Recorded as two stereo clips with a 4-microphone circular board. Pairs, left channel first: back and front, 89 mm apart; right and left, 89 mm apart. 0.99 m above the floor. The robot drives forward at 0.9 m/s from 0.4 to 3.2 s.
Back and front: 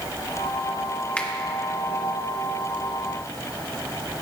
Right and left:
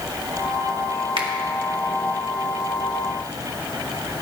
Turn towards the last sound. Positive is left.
turn(degrees=145)